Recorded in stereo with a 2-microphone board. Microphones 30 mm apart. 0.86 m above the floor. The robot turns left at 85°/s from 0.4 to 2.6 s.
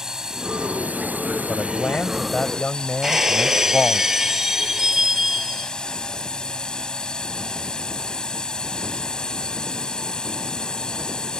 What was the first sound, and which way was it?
A drone, 20° right.